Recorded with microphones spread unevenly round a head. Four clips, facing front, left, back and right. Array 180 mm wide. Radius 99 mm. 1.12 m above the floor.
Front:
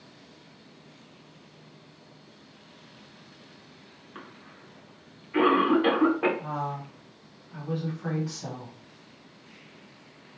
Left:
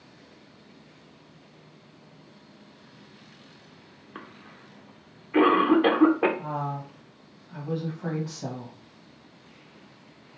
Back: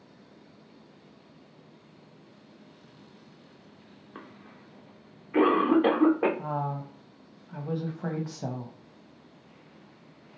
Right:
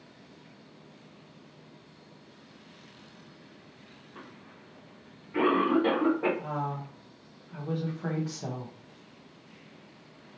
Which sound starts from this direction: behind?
A woman speaking, at 6.4 s.